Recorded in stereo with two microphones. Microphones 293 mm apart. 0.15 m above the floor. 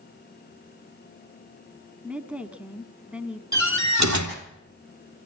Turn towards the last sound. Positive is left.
turn(degrees=-70)  # may be behind; listen again after turning